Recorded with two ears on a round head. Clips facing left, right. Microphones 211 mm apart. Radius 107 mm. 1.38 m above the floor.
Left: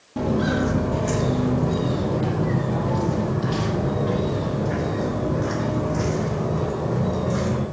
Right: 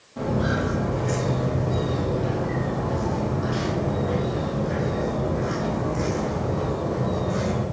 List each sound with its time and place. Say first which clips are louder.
0.2 s footsteps: left 3 dB; 60° left (ahead or behind), 2.5 m; by 7.6 s 40° left (ahead or behind), 5 m